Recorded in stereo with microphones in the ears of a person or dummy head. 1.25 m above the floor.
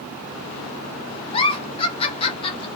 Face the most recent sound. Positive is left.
turn(degrees=25)  # may be behind; listen again after turning